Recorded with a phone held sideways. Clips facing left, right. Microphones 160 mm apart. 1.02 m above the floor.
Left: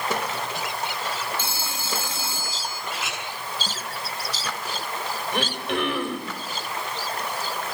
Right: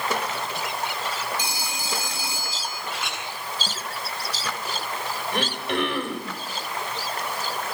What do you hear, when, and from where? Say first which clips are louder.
1.4 s a phone ringing: even; 15° right (ahead or behind), 5 m
2.9 s a clink: even; centre (ahead or behind), 7 m
5.3 s throat clearing: even; centre (ahead or behind), 5 m